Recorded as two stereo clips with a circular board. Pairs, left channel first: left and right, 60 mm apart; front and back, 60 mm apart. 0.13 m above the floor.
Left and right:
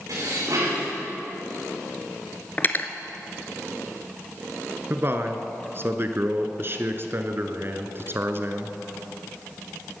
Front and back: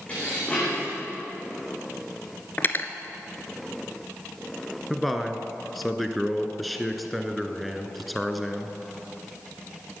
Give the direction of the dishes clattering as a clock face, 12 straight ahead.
2 o'clock.